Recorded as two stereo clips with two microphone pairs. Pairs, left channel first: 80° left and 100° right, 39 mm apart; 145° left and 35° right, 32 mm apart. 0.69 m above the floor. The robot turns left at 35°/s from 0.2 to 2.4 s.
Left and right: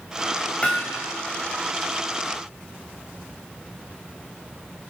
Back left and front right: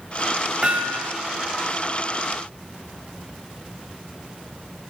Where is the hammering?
20° left, 3.5 m; by 1.1 s 5° left, 3.5 m.